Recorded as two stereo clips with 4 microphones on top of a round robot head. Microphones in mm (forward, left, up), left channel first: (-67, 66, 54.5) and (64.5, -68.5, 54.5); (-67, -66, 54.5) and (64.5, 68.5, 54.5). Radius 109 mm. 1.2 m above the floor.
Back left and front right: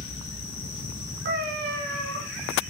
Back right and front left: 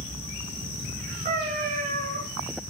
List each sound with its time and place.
1.2 s a cat meowing: 5° right, 4 m